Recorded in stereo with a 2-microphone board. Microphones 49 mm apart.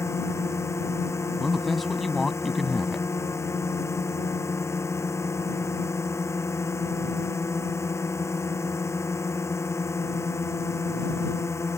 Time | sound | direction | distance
0.0 | a drone | 80° left | ?
1.4 | a woman speaking | 5° left (ahead or behind) | ?